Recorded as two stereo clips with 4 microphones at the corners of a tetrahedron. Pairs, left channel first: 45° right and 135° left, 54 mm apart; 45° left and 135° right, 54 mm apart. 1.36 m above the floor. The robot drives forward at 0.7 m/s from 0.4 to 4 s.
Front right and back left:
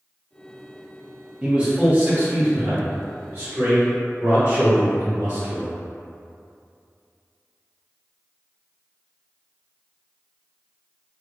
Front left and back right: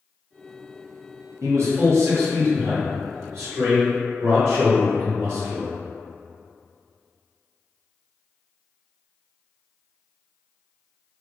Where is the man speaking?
150° right, 1.0 m; by 5.8 s 170° right, 2.5 m.